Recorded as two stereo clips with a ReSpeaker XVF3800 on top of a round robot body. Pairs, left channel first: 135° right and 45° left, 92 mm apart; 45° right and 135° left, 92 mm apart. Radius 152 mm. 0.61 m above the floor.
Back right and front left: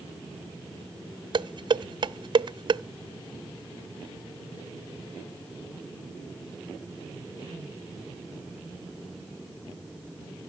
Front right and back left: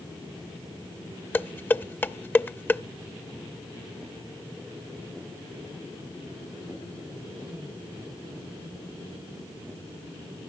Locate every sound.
1.3 s dishes clattering: 20° left, 0.6 m